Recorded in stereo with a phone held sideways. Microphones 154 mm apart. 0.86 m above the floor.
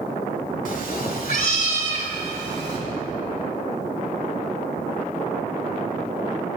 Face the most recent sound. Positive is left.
turn(degrees=35)  # may be behind; listen again after turning